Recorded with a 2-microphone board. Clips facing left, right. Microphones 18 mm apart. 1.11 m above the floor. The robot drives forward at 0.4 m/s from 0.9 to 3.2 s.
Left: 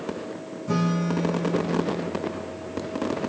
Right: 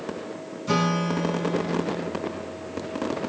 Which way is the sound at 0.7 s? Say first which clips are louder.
Right 1 dB; 80° right.